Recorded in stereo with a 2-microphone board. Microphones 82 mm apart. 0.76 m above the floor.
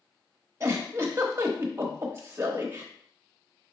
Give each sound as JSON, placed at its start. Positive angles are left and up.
{"t": 0.6, "sound": "a giggle", "side_deg": -30, "distance_m": 0.8}